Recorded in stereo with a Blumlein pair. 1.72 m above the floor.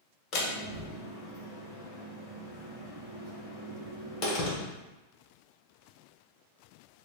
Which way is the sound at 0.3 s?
30° left.